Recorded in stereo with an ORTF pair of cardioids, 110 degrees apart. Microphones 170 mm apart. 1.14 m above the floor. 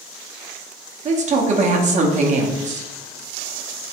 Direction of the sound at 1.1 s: 45° right.